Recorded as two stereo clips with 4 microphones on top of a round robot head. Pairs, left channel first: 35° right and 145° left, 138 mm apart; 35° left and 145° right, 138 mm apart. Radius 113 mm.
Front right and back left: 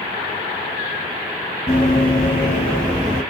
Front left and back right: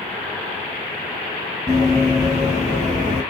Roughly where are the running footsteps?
Right.